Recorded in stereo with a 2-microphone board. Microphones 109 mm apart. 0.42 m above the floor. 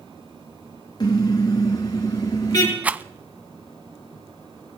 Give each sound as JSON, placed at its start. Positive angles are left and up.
{"t": 1.0, "sound": "a car horn", "side_deg": 40, "distance_m": 3.0}
{"t": 2.8, "sound": "a rattle", "side_deg": -15, "distance_m": 0.5}